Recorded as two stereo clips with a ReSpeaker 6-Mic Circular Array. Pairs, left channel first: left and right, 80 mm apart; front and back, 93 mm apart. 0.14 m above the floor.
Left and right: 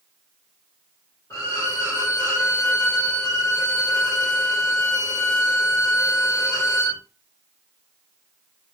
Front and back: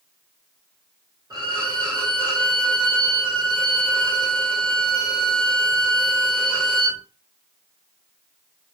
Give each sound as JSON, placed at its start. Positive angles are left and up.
{"t": 1.3, "sound": "a violin", "azimuth_deg": 135, "distance_m": 1.9}